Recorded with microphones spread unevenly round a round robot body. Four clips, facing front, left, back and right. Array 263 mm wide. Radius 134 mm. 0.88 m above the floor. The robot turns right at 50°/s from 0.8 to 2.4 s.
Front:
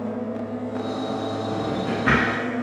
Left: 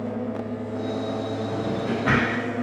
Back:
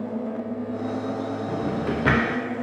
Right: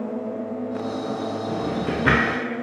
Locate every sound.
1.5 s a drawer: 160° right, 0.5 m; by 2.4 s 115° right, 0.5 m